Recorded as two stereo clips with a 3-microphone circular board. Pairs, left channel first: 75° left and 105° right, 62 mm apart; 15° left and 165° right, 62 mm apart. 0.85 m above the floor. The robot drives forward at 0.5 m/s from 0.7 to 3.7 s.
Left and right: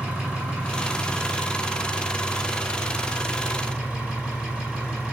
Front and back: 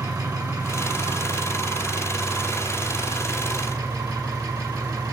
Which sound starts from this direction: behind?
An engine running, at 0.0 s.